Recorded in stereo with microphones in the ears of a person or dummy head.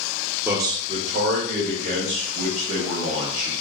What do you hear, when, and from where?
0.5 s a man speaking: 10° right (ahead or behind), 0.6 m; by 3.5 s 40° right (ahead or behind), 2 m